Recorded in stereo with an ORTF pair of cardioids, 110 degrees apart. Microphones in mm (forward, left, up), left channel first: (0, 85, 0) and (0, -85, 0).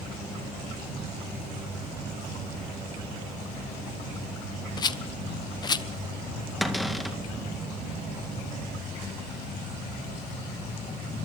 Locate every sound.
4.8 s a rattle: 25° left, 1.1 m
6.6 s a cupboard door: straight ahead, 2 m